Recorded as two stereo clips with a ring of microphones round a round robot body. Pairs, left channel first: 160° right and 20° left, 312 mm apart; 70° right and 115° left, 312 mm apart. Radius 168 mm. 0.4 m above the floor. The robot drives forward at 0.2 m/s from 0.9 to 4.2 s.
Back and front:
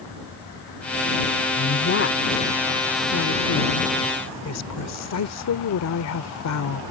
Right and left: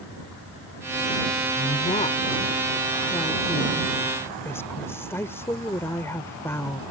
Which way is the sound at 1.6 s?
125° right.